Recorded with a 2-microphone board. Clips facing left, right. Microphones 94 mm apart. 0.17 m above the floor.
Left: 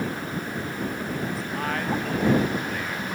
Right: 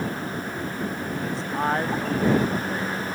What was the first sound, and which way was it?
A man speaking, 30° right (ahead or behind).